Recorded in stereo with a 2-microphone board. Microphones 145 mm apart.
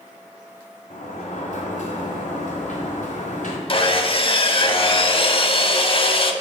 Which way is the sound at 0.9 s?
60° left (ahead or behind).